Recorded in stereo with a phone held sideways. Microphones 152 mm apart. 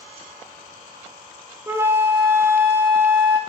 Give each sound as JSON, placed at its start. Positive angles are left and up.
{"t": 1.7, "sound": "a flute", "side_deg": -15, "distance_m": 0.5}